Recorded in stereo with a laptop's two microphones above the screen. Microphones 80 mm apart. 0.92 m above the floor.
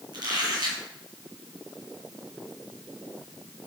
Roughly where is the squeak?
Right.